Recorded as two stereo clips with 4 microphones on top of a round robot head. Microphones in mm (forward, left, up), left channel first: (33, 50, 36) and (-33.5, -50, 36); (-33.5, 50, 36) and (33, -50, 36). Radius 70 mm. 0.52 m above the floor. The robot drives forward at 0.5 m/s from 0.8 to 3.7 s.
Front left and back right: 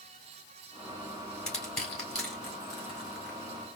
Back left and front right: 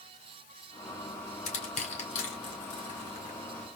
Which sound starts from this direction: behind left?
Crushing, at 1.5 s.